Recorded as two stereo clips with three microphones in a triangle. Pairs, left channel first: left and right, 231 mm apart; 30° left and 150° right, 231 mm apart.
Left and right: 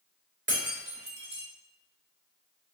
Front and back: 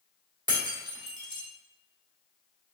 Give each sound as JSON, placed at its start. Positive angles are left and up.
{"t": 0.5, "sound": "breaking glass", "azimuth_deg": -85, "distance_m": 1.4}